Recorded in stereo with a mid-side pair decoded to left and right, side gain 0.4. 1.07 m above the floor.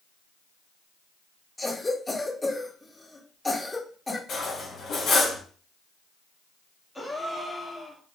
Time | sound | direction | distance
1.6 | a cough | 20° left | 1.2 m
4.3 | cutlery clinking | 65° left | 1.1 m
7.0 | a gasp | 5° left | 1.0 m